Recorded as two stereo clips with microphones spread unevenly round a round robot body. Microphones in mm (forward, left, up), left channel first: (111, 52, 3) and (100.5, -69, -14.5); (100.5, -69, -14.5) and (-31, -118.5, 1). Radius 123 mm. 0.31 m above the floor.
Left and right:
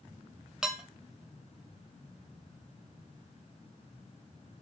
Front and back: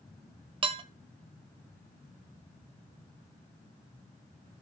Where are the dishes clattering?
165° right, 0.7 m.